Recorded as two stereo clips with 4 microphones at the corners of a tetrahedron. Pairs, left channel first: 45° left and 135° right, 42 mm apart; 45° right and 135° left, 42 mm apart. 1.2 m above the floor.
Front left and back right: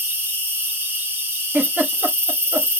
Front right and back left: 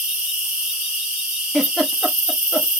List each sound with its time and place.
0.0 s an insect: 150° right, 1.4 m
1.5 s a giggle: 130° right, 0.8 m